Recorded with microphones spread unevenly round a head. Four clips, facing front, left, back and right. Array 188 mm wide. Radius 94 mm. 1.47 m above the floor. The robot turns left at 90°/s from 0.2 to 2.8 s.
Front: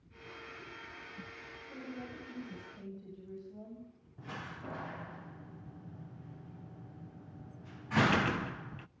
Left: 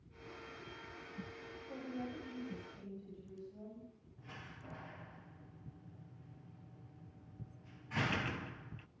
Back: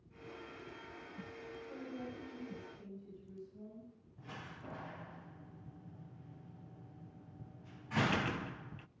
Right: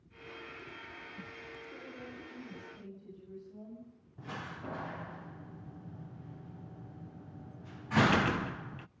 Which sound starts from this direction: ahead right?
A door slam, at 4.2 s.